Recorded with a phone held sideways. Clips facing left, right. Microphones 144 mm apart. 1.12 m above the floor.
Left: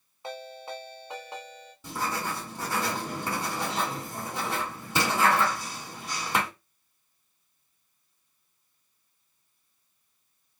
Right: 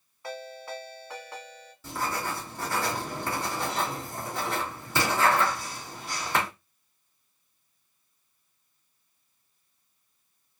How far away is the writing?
About 2 m.